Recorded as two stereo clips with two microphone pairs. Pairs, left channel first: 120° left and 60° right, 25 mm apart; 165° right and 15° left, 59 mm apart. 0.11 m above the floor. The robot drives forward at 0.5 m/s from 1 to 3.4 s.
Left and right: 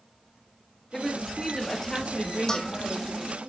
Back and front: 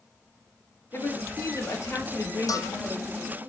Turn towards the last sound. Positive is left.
turn(degrees=-170)